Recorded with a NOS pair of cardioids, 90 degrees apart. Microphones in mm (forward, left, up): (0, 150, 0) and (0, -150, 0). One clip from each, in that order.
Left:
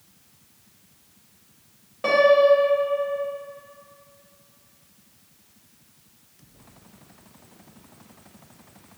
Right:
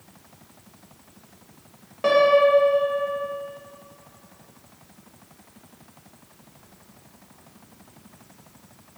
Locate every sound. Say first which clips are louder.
2.0 s a piano: left 1 dB; 10° right, 0.9 m